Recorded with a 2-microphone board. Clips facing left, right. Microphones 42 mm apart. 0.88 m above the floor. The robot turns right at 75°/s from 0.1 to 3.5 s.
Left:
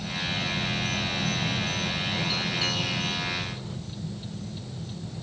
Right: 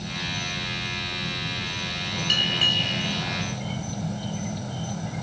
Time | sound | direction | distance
0.0 | an insect | 5° left | ?
2.3 | a bell | 85° right | ?